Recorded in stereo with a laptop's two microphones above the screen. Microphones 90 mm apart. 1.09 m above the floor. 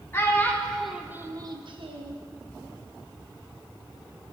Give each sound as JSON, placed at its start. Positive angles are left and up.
{"t": 0.1, "sound": "a child speaking", "side_deg": 25, "distance_m": 1.0}